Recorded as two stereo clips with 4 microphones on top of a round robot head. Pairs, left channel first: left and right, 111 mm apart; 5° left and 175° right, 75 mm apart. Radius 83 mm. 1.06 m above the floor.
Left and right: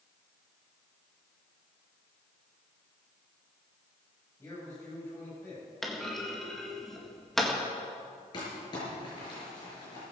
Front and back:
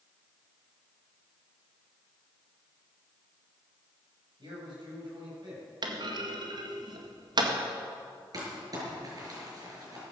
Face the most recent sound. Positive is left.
turn(degrees=150)